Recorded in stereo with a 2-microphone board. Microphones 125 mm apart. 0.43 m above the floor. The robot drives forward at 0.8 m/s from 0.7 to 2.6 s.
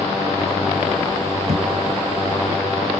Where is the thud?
60° right (ahead or behind).